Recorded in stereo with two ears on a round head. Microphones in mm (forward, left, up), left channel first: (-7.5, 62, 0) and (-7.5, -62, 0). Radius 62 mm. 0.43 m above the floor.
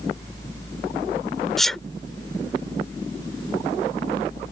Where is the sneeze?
Centre (ahead or behind).